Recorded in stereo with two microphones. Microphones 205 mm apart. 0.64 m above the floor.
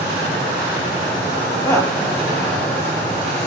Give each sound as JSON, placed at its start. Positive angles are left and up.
{"t": 1.6, "sound": "a woman speaking", "side_deg": 15, "distance_m": 5.0}